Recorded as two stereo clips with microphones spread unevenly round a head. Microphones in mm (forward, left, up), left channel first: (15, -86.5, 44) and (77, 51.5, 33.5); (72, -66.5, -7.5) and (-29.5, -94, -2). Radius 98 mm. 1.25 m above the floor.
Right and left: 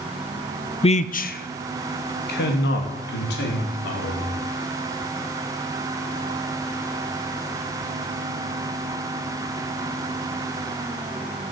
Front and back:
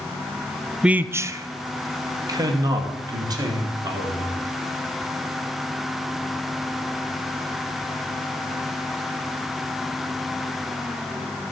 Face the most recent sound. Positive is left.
turn(degrees=-115)